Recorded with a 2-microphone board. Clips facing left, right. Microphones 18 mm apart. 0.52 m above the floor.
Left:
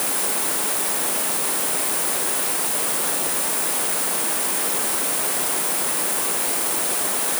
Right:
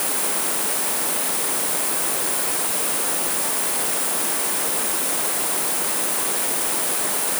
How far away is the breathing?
I don't hear breathing.